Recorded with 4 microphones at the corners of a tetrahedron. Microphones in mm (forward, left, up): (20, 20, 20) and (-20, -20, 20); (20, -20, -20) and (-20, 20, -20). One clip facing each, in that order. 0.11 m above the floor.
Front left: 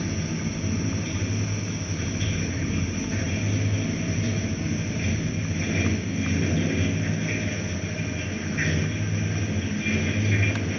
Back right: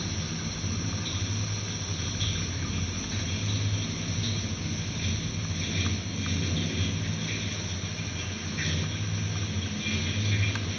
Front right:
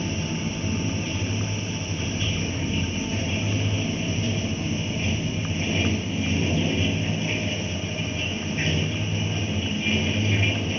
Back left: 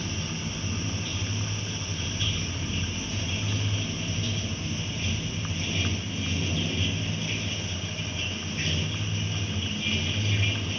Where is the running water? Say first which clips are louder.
Front left 6 dB, front right 6 dB; straight ahead, 0.7 m.